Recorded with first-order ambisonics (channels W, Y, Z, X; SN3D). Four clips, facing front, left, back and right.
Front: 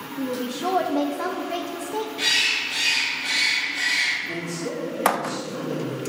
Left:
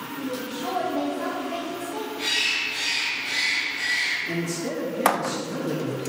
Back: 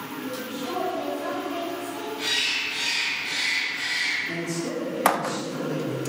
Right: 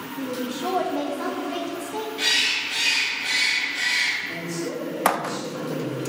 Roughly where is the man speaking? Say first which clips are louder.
Left 1 dB, even; left.